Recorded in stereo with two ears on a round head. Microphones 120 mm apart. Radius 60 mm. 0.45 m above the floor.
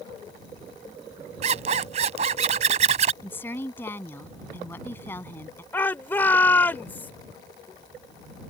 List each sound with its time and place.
1.4 s a zipper: 55° right (ahead or behind)
3.2 s a woman speaking: 15° left (ahead or behind)
5.7 s a shout: 15° left (ahead or behind)